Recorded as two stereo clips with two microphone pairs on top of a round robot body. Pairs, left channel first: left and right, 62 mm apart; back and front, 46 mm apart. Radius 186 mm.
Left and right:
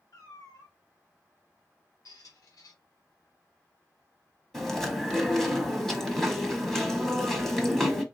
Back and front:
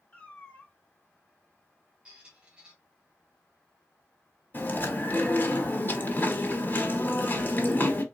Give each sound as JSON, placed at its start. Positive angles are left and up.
{"t": 0.1, "sound": "a cat meowing", "azimuth_deg": 115, "distance_m": 1.5}
{"t": 2.0, "sound": "a squeak", "azimuth_deg": 65, "distance_m": 1.0}
{"t": 4.5, "sound": "chewing", "azimuth_deg": 170, "distance_m": 1.6}